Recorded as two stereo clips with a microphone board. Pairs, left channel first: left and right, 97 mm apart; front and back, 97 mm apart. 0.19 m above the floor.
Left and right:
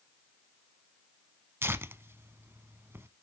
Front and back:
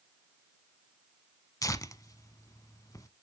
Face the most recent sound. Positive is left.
turn(degrees=-35)